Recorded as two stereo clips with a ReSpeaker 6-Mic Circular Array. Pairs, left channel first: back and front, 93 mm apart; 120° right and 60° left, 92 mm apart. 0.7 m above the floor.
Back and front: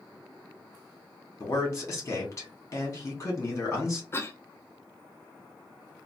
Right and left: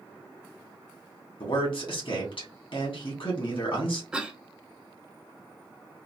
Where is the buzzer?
I don't hear a buzzer.